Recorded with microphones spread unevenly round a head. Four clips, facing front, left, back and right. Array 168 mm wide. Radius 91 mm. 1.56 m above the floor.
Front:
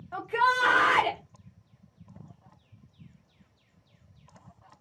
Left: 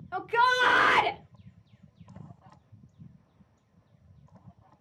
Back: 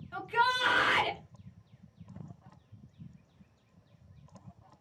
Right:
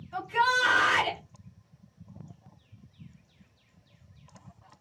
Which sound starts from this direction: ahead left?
A shout, at 0.1 s.